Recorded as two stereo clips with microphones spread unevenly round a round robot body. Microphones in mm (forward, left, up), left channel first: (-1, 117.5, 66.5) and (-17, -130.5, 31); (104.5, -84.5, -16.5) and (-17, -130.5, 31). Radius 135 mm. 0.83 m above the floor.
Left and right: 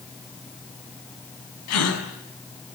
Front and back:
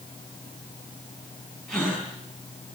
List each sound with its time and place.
1.7 s a gasp: 110° left, 6 m